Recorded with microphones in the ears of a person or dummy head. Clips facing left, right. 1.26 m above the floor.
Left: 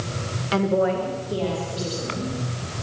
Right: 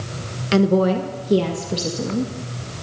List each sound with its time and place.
0.5 s a woman speaking: 25° right (ahead or behind), 0.7 m; by 2.3 s 75° right (ahead or behind), 2 m